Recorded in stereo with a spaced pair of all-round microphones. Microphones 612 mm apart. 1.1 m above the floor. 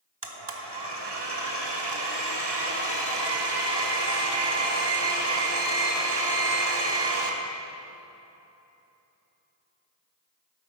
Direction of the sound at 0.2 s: 45° right (ahead or behind).